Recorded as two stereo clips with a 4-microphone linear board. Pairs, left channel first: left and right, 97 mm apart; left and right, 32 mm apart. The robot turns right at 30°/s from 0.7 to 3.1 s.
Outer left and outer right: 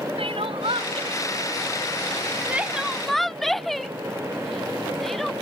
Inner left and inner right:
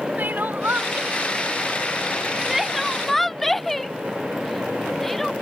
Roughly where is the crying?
Right.